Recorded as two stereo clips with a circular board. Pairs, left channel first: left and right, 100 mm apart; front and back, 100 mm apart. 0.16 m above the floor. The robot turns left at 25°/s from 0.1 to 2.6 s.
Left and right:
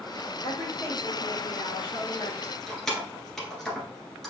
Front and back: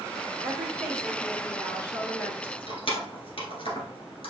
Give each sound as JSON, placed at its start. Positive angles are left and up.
{"t": 0.4, "sound": "a woman speaking", "azimuth_deg": 105, "distance_m": 3.5}
{"t": 2.4, "sound": "keys jangling", "azimuth_deg": 10, "distance_m": 1.4}